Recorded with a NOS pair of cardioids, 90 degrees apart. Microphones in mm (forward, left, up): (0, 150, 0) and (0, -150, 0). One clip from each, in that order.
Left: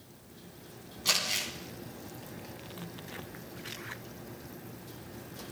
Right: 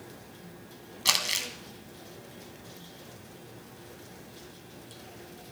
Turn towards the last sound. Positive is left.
turn(degrees=-45)